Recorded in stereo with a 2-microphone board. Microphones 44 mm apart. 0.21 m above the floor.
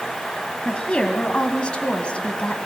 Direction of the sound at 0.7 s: 30° left (ahead or behind).